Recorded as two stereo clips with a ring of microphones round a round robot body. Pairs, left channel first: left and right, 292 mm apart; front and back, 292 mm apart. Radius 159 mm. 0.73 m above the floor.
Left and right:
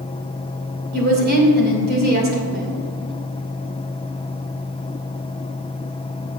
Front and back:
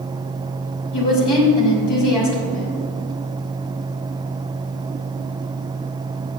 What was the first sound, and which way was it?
A woman speaking, 35° right.